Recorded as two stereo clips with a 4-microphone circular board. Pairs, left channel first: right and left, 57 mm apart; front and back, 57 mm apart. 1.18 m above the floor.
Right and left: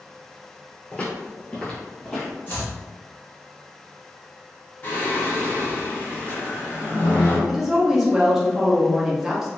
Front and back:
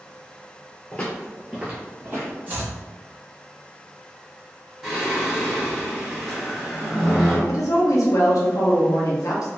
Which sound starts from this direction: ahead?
A woman speaking, at 7.5 s.